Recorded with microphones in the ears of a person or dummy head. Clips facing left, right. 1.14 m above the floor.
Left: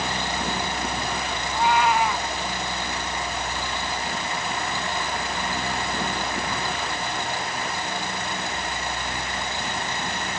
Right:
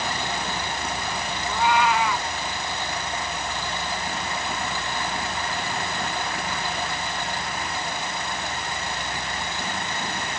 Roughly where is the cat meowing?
Right.